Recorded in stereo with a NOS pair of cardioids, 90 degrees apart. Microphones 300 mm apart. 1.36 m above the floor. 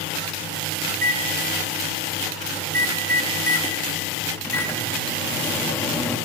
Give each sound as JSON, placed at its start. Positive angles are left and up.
{"t": 0.9, "sound": "a microwave", "azimuth_deg": 10, "distance_m": 1.8}